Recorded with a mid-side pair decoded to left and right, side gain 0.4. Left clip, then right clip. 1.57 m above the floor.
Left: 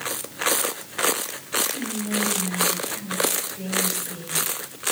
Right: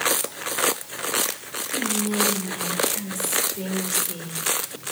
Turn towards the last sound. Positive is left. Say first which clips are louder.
# right 3 dB
turn(degrees=-65)